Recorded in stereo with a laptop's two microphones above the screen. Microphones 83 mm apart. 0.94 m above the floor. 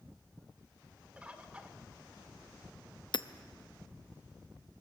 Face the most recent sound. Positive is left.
turn(degrees=70)  # may be behind; listen again after turning